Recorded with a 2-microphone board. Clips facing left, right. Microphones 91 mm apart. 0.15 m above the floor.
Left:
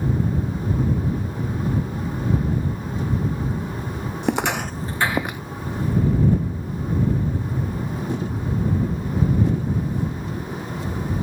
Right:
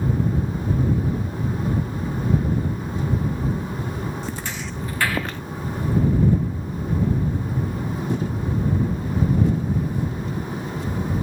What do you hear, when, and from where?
4.2 s footsteps: 65° left (ahead or behind); by 5.4 s 10° left (ahead or behind)